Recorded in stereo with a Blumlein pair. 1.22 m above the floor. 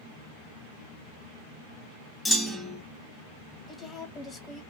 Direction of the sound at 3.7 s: 25° left.